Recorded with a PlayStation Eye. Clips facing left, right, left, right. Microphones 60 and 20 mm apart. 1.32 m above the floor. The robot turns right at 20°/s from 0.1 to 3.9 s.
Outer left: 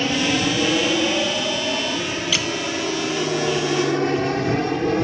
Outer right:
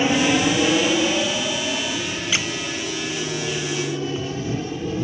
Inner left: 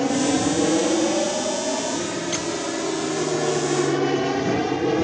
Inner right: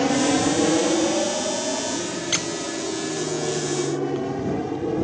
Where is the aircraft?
15° right (ahead or behind); by 5.0 s 65° left (ahead or behind).